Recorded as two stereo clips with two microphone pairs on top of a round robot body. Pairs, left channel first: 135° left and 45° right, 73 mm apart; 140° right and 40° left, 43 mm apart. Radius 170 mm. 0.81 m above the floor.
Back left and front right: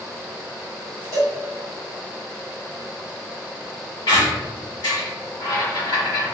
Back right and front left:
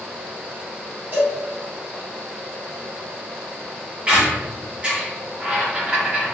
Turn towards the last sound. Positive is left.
turn(degrees=105)